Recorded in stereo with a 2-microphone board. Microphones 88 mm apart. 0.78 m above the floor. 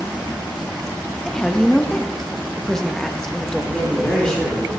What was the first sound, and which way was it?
A woman speaking, 5° left (ahead or behind).